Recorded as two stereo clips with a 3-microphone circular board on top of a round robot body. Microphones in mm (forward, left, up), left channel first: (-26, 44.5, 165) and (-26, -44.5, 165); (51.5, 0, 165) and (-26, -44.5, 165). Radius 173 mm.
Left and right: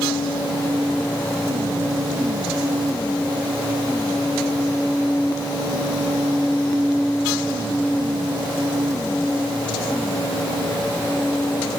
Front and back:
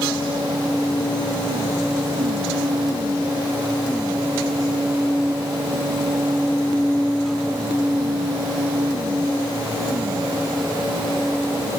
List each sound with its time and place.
Only background noise.